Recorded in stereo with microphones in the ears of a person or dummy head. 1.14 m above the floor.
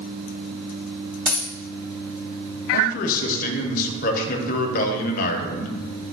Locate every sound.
1.2 s a dropped coin: 30° right (ahead or behind), 1.2 m
2.7 s a man speaking: 45° left (ahead or behind), 1.2 m